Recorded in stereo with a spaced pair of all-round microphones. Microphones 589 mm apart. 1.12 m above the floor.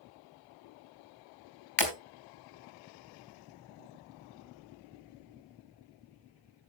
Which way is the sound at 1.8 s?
40° left (ahead or behind).